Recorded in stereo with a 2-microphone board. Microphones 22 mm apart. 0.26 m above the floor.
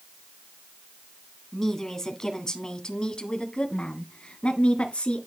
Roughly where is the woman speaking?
Centre.